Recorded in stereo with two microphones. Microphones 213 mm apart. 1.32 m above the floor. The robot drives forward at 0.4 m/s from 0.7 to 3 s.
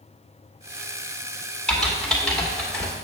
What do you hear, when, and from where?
1.7 s typing on a keyboard: centre (ahead or behind), 1.9 m